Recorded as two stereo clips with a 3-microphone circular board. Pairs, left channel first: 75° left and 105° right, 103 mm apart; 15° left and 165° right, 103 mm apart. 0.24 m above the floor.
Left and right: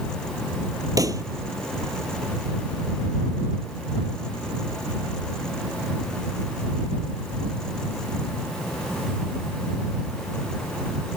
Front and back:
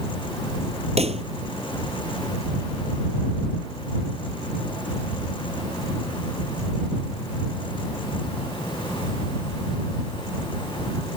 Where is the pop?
160° right.